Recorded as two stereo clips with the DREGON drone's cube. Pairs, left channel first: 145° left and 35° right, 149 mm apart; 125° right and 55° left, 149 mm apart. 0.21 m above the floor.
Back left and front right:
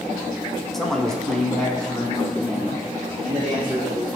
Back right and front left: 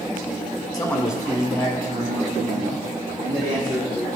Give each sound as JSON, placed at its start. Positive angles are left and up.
{"t": 0.7, "sound": "a man speaking", "azimuth_deg": -130, "distance_m": 1.0}